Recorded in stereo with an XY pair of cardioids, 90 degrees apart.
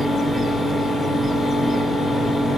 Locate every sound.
0.0 s a fan: 35° left, 1.6 m